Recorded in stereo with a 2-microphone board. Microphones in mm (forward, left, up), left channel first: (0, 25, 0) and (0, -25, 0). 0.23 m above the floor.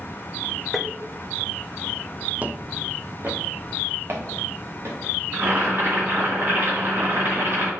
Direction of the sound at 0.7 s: Centre (ahead or behind).